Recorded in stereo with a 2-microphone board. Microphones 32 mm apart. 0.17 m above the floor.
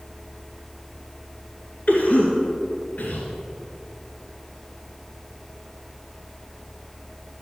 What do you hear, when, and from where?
1.9 s a cough: 55° left (ahead or behind), 2.5 m